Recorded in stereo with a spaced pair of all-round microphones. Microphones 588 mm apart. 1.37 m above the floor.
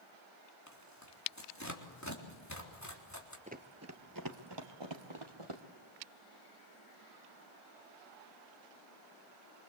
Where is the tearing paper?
30° left (ahead or behind), 3.5 m.